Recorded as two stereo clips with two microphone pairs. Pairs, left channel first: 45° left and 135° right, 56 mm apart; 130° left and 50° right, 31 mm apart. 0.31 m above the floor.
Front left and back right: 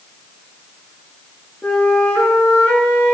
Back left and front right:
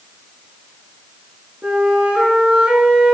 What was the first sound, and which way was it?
A flute, 20° right.